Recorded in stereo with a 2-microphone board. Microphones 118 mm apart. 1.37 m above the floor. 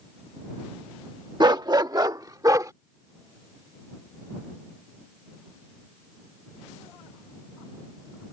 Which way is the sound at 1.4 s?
35° right (ahead or behind).